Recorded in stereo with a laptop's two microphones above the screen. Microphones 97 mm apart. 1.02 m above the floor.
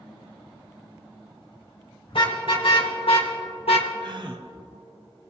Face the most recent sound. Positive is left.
turn(degrees=-55)  # may be behind; listen again after turning